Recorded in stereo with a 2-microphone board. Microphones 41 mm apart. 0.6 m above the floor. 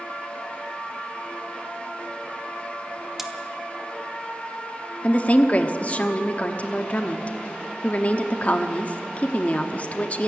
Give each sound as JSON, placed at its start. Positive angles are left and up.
{"t": 3.2, "sound": "cutlery clinking", "side_deg": -10, "distance_m": 1.0}
{"t": 5.0, "sound": "a woman speaking", "side_deg": 35, "distance_m": 0.9}